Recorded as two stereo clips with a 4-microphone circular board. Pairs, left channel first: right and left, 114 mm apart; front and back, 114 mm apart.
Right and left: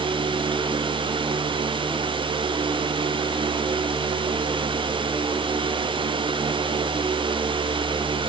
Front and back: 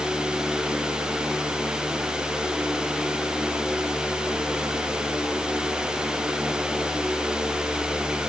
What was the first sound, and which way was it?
Only background noise.